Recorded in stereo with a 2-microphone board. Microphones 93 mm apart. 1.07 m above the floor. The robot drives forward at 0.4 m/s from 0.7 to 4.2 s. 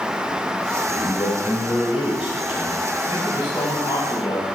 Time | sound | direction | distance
0.9 | a man speaking | 85° left | 4.5 m
3.1 | a man speaking | 80° left | 5.5 m